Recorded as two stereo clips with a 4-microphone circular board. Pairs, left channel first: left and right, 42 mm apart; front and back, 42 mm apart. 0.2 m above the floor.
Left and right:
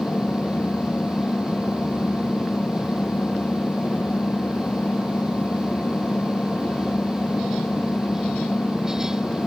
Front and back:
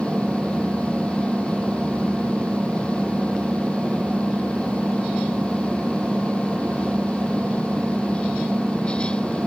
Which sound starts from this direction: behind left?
An engine running, at 0.0 s.